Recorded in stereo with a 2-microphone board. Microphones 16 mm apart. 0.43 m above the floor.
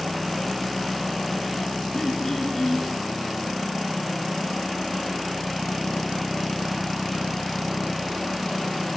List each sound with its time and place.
1.9 s throat clearing: 35° left (ahead or behind), 5 m